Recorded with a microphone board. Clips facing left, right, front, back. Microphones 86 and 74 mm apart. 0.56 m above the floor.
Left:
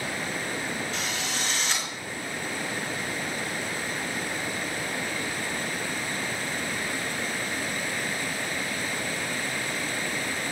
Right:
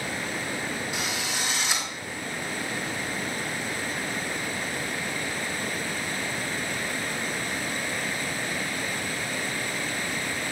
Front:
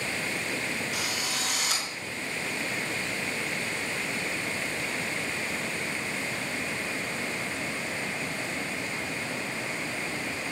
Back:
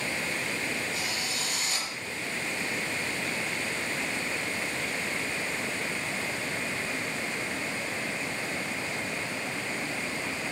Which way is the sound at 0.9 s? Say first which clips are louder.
Right 1 dB, front 1 dB; 10° right.